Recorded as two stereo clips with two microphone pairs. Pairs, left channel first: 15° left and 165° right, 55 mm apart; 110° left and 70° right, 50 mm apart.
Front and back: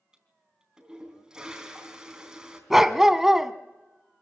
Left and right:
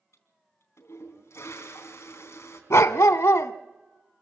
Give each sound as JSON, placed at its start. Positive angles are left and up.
{"t": 0.1, "sound": "a toilet flushing", "azimuth_deg": 120, "distance_m": 3.5}
{"t": 2.7, "sound": "a dog barking", "azimuth_deg": 115, "distance_m": 0.7}